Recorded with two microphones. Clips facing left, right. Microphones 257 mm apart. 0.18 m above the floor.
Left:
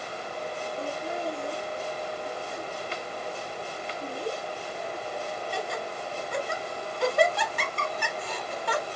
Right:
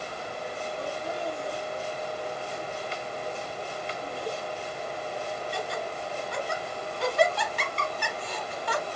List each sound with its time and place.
0.8 s laughter: 55° left (ahead or behind), 3 m